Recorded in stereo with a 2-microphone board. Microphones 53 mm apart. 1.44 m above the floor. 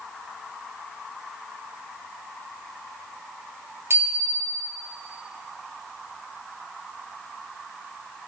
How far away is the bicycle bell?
About 4 m.